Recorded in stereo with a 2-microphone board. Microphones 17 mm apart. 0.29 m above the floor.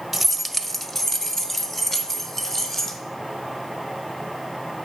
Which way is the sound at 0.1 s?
5° right (ahead or behind).